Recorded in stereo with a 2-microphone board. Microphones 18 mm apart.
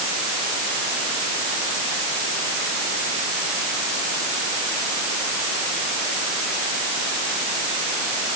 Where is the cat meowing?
No cat meowing in this recording.